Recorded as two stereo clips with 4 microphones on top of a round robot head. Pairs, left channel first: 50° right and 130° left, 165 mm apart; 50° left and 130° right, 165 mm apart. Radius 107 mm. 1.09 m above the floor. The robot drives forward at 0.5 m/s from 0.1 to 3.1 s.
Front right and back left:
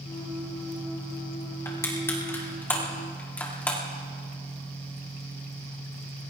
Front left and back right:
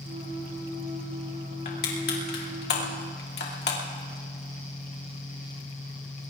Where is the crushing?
20° left, 3 m; by 3.8 s 30° left, 2.5 m.